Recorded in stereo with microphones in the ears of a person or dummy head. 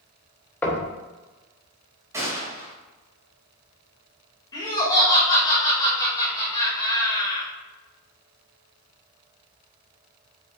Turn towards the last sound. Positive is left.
turn(degrees=20)  # may be behind; listen again after turning